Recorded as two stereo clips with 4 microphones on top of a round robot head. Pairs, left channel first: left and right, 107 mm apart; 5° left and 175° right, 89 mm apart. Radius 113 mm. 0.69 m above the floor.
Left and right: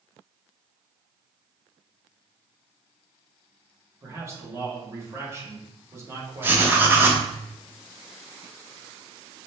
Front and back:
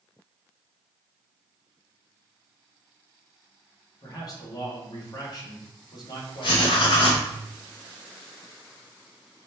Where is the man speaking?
30° right, 1.4 m.